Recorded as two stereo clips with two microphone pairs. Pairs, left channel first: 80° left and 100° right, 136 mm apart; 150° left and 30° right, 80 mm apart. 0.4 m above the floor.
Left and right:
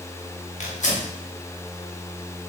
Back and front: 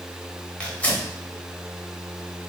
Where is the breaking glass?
No breaking glass in this recording.